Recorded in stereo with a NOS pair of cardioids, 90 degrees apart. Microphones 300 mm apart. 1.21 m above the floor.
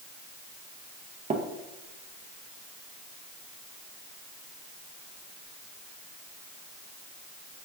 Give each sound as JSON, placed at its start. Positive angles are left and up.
{"t": 1.3, "sound": "tapping", "azimuth_deg": -25, "distance_m": 0.6}